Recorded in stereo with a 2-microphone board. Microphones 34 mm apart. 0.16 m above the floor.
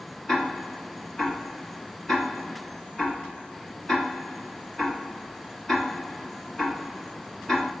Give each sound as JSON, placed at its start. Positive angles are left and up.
{"t": 0.3, "sound": "ticking", "side_deg": 15, "distance_m": 1.1}